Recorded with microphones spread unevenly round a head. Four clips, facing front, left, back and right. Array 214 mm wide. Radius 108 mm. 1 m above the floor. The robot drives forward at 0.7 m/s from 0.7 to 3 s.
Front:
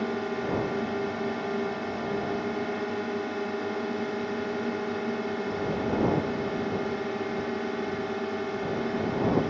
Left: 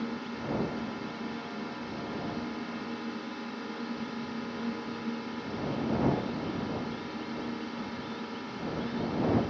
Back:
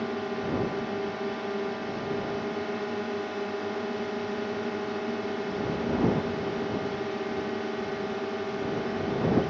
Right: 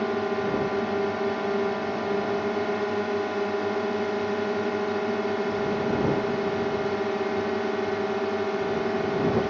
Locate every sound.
0.0 s a drone: 85° right; by 9.5 s 90° right